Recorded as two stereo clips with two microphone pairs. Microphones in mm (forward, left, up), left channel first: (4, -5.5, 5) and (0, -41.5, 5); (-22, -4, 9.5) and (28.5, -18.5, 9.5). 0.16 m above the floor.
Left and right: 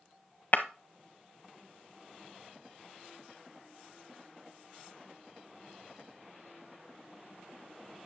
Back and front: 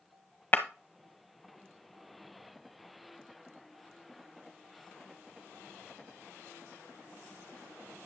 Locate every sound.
0.5 s breaking glass: 120° left, 1.3 m